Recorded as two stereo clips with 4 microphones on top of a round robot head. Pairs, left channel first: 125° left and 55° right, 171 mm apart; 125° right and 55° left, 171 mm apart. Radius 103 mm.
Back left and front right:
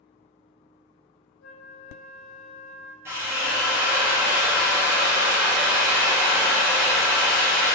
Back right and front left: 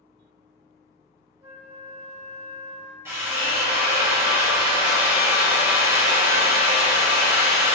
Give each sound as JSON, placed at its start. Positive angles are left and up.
{"t": 1.4, "sound": "a flute", "azimuth_deg": 125, "distance_m": 0.6}
{"t": 3.0, "sound": "a drill", "azimuth_deg": 0, "distance_m": 0.5}